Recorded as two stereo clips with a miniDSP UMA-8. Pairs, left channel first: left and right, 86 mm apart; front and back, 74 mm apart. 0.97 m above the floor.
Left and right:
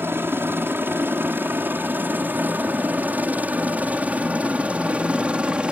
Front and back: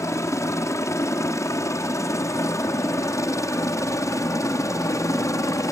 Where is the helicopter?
35° right; by 5.7 s 15° right.